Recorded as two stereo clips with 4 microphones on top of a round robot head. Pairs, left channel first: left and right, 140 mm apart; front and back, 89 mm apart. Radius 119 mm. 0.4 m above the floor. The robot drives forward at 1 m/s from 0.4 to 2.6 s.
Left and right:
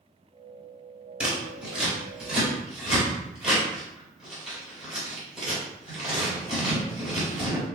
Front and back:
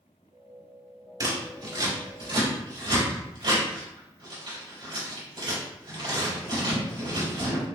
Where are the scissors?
170° right, 1.8 m; by 7.7 s 175° right, 3 m.